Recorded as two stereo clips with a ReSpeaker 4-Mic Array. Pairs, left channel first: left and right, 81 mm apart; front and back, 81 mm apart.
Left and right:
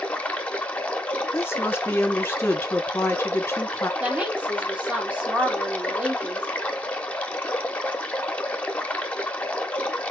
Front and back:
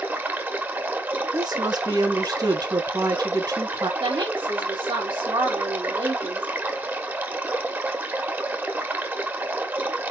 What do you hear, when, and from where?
0.0 s running water: 145° left, 1.0 m
1.3 s a woman speaking: 145° left, 1.3 m
4.0 s a woman speaking: 165° right, 2 m